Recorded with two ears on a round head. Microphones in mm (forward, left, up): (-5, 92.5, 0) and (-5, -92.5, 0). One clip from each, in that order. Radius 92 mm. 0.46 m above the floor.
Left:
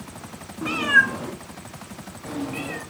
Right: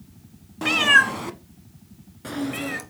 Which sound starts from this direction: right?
A cat meowing, at 0.6 s.